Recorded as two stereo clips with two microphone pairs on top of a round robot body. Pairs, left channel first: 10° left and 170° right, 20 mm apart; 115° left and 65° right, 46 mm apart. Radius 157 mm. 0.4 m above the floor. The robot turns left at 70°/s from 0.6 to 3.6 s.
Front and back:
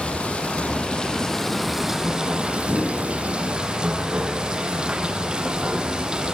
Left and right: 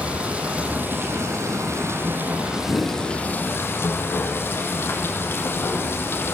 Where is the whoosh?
55° left, 6.5 m; by 3.0 s 30° left, 6.5 m.